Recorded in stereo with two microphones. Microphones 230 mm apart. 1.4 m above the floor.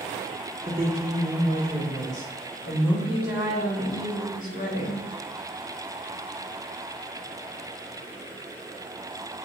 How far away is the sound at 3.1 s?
About 3 m.